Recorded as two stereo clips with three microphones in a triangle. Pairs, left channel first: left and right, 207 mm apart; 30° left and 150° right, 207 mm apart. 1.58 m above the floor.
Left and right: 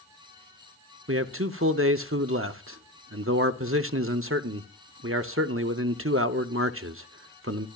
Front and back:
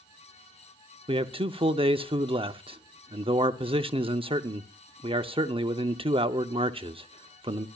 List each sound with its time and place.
1.1 s a man speaking: 85° right, 0.7 m